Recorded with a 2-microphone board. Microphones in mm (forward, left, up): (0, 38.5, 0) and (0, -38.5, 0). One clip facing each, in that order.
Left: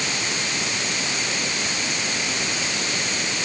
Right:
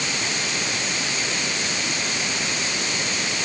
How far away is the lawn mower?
No lawn mower in this recording.